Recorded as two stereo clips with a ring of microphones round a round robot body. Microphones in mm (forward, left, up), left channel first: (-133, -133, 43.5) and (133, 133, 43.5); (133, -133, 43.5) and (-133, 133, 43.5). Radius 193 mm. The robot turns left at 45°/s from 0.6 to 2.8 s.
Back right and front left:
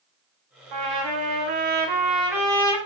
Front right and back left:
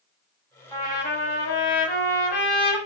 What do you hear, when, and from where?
0.7 s a trumpet: 35° left, 4.5 m; by 2.8 s 60° right, 4.5 m